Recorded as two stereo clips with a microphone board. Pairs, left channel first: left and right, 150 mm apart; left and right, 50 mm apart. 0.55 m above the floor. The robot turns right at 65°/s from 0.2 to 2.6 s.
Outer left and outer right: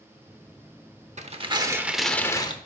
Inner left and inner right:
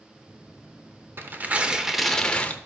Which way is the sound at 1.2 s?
55° right.